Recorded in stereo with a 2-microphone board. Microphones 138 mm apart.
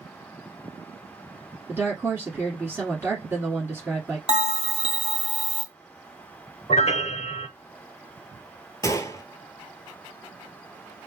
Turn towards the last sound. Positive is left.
turn(degrees=25)  # may be behind; listen again after turning